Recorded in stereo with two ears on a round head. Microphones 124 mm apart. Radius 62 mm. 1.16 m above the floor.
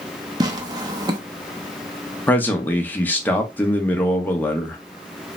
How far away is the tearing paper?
About 0.6 m.